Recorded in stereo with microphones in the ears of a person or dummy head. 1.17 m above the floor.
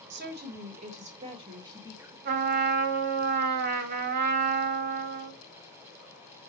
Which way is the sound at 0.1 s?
50° right (ahead or behind).